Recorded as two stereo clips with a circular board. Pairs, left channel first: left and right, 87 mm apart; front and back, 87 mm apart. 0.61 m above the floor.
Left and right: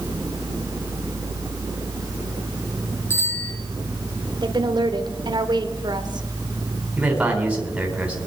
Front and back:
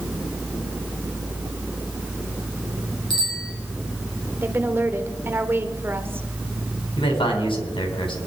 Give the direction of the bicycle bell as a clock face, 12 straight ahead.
11 o'clock.